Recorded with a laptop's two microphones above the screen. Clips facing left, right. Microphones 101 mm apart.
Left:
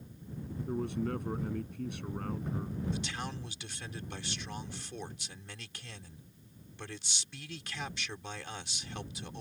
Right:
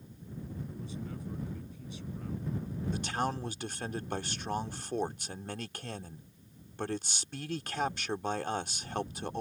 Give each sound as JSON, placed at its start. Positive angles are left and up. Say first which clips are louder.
{"t": 0.7, "sound": "a man speaking", "louder": "left 8 dB", "side_deg": 65}
{"t": 2.9, "sound": "a man speaking", "louder": "right 6 dB", "side_deg": -50}